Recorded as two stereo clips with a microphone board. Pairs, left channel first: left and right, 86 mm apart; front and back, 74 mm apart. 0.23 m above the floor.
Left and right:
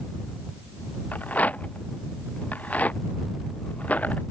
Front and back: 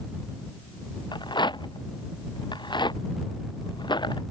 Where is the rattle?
15° left.